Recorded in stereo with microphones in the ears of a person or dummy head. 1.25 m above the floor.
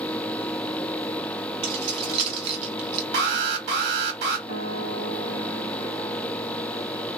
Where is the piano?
45° right (ahead or behind), 1.4 m.